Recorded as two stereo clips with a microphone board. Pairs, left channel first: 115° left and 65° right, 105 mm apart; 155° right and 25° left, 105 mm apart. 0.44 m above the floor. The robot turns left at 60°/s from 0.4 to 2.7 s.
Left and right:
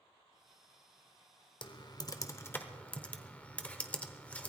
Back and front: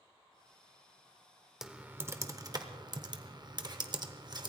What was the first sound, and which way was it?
Typing on a keyboard, 105° left.